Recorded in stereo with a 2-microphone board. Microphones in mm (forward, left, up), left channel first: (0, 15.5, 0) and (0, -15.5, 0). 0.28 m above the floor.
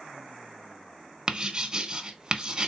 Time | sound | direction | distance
1.3 | writing | 30° right (ahead or behind) | 0.5 m